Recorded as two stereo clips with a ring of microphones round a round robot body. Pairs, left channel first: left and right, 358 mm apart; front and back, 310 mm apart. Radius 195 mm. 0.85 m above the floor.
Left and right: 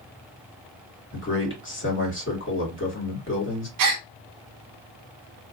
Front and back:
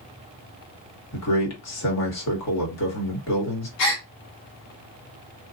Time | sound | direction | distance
1.1 | a man speaking | 35° left | 1.9 m
3.8 | a gasp | 45° right | 0.6 m